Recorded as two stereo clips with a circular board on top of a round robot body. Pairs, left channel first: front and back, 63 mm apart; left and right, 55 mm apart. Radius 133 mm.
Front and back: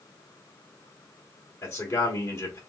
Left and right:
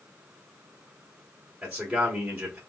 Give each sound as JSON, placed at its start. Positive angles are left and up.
{"t": 1.6, "sound": "a man speaking", "azimuth_deg": -20, "distance_m": 2.0}